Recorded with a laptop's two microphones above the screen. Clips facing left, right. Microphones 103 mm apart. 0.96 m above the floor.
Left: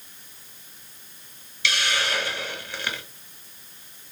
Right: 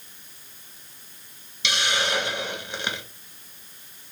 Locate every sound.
1.6 s a hiss: 20° right (ahead or behind), 0.8 m